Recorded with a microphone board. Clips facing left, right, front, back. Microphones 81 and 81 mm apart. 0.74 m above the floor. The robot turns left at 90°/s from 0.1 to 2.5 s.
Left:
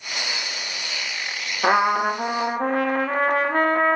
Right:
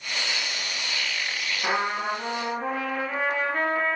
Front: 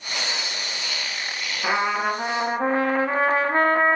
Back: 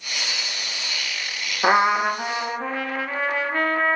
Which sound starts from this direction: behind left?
A trumpet, at 1.6 s.